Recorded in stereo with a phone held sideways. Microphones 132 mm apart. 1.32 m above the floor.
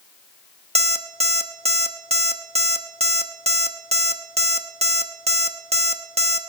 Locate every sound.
0.8 s an alarm clock: 50° right (ahead or behind), 1.0 m